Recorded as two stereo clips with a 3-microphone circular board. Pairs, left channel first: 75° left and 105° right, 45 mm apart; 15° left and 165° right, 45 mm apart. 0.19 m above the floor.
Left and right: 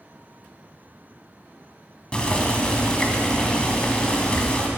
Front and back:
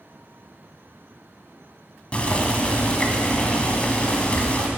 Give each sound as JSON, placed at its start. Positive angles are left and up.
{"t": 2.1, "sound": "boiling", "azimuth_deg": 35, "distance_m": 1.4}